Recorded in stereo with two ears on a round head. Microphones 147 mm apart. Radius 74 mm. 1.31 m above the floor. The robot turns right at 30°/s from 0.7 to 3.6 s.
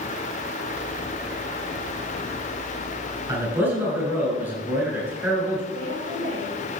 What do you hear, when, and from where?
3.3 s a man speaking: 20° right (ahead or behind), 7 m; by 5.6 s 10° right (ahead or behind), 7 m
5.7 s a woman speaking: 50° right (ahead or behind), 7 m